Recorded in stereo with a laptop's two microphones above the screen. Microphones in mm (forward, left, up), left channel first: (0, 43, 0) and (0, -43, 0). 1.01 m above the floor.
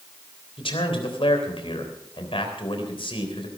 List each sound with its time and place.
0.6 s a man speaking: 85° left, 3.5 m